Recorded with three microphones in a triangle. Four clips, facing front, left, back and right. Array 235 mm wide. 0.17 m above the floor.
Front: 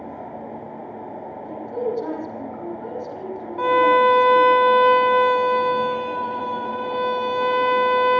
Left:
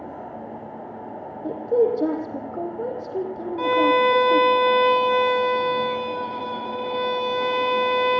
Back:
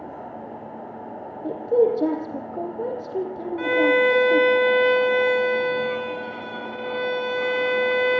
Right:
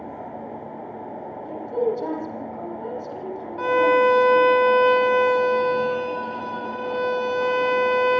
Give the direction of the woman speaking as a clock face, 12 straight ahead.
7 o'clock.